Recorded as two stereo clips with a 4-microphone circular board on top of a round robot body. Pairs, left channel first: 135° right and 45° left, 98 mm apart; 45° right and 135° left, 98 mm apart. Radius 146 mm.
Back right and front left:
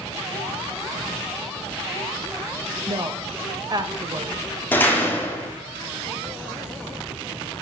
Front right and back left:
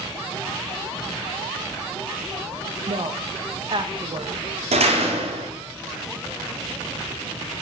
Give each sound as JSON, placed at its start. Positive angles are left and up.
{"t": 2.9, "sound": "a woman speaking", "azimuth_deg": 95, "distance_m": 1.8}
{"t": 4.7, "sound": "a door slam", "azimuth_deg": 150, "distance_m": 2.5}